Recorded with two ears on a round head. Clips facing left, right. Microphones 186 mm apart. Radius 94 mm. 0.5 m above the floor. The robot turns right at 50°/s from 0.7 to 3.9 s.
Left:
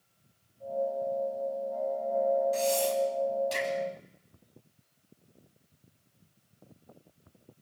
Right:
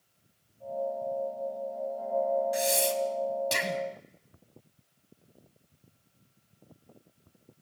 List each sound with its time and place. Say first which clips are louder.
2.5 s breathing: left 1 dB; 15° right (ahead or behind), 3 m; by 3.8 s 75° right (ahead or behind), 3 m